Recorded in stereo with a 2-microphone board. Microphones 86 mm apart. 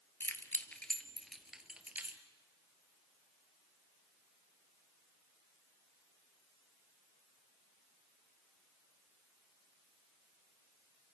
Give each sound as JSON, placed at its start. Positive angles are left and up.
{"t": 0.2, "sound": "keys jangling", "side_deg": 30, "distance_m": 1.5}